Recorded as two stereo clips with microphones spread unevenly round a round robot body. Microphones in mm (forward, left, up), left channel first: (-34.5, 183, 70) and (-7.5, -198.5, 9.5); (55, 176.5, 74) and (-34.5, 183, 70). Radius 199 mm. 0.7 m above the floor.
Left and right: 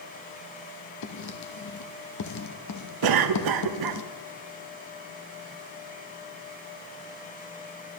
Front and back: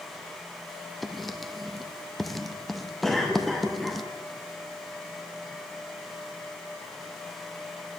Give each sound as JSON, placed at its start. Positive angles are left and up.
{"t": 1.0, "sound": "writing", "azimuth_deg": 90, "distance_m": 1.2}
{"t": 3.0, "sound": "a cough", "azimuth_deg": -90, "distance_m": 1.1}